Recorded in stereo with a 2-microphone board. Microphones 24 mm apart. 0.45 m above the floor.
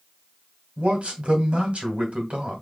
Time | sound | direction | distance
0.8 | a man speaking | 60° right (ahead or behind) | 2 m